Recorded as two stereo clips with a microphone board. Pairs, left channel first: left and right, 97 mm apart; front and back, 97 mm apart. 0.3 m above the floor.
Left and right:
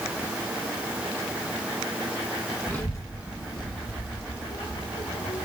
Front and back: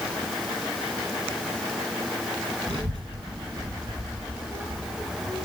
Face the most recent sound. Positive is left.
turn(degrees=105)